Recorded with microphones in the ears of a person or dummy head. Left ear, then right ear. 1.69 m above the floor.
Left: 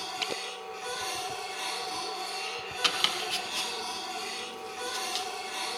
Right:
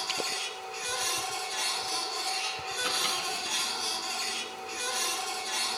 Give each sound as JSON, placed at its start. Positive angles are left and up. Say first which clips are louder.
{"t": 0.0, "sound": "a machine running", "louder": "right 2 dB", "side_deg": -35, "distance_m": 8.0}
{"t": 2.8, "sound": "chopping", "louder": "left 3 dB", "side_deg": 50, "distance_m": 2.5}